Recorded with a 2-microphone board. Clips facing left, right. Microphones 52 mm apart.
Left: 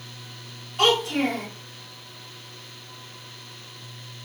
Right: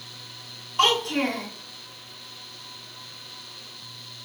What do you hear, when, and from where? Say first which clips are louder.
0.8 s a child speaking: left 1 dB; 5° left (ahead or behind), 1.6 m